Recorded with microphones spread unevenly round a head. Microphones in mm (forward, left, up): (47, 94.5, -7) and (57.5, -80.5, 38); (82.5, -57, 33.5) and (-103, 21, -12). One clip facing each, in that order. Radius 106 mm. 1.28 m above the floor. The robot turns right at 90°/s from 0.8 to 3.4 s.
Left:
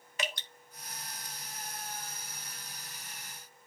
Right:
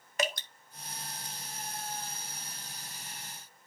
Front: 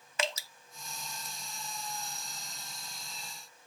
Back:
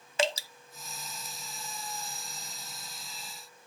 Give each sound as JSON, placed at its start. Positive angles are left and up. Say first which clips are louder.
{"t": 0.2, "sound": "dripping", "louder": "right 6 dB, back 6 dB", "azimuth_deg": -140, "distance_m": 0.8}